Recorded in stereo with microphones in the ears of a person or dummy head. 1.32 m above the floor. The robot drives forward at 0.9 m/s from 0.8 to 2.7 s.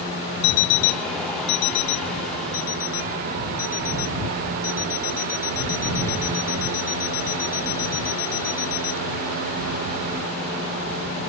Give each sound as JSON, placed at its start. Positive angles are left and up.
{"t": 0.4, "sound": "an alarm clock", "side_deg": 65}